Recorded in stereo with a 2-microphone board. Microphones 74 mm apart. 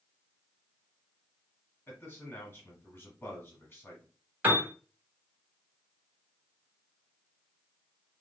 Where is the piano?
25° right (ahead or behind), 1.3 m.